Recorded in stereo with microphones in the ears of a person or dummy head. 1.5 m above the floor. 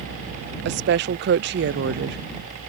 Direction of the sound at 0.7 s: 50° right (ahead or behind).